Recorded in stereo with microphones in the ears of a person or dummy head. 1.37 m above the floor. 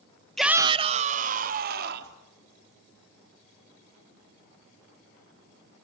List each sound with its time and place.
0.4 s a shout: 5° left (ahead or behind), 0.9 m; by 2.2 s 55° right (ahead or behind), 3 m